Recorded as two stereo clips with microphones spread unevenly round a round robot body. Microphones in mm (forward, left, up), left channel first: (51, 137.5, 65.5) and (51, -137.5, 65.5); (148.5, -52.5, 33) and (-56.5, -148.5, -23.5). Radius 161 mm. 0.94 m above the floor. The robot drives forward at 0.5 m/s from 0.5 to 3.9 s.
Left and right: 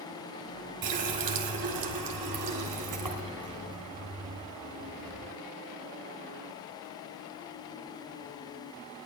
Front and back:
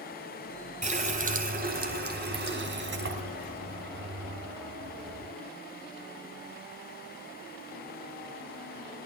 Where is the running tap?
95° right, 2.5 m; by 5.3 s 125° right, 3 m.